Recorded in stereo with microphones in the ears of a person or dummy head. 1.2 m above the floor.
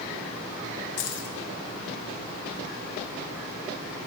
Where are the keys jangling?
60° left (ahead or behind), 1.3 m.